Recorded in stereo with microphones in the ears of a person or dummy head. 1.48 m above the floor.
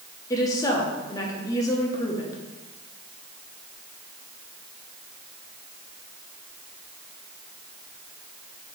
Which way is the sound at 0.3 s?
20° left (ahead or behind).